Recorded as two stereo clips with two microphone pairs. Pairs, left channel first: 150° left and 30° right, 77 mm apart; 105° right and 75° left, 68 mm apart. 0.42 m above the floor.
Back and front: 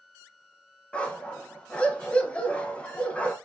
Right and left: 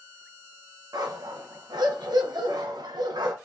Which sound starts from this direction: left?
A dog barking, at 0.9 s.